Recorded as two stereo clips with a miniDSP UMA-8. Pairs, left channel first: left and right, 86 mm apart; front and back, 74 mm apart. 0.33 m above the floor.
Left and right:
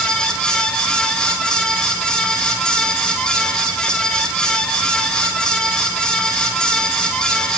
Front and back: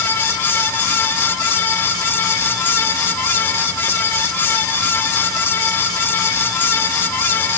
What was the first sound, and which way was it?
Only background noise.